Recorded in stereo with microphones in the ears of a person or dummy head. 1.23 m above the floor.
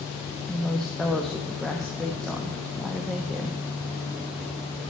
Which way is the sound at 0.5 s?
Centre (ahead or behind).